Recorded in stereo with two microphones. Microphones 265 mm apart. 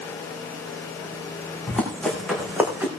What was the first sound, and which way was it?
Running footsteps, 5° left (ahead or behind).